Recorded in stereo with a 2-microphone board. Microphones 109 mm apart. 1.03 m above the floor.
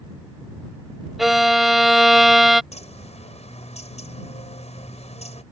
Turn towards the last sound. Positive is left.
turn(degrees=85)